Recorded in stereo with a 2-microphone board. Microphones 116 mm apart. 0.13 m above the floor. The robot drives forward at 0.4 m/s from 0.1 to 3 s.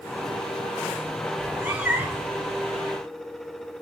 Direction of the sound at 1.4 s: 15° right (ahead or behind).